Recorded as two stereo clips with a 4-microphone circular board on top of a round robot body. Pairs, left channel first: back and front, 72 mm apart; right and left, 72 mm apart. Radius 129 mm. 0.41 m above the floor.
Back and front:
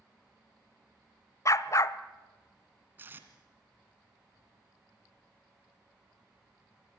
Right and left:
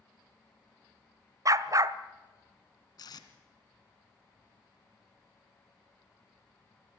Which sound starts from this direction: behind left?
A dog barking, at 1.4 s.